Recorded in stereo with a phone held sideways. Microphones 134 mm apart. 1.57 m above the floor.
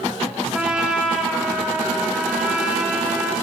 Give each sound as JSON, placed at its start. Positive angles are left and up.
{"t": 0.5, "sound": "a trumpet", "side_deg": -10, "distance_m": 1.4}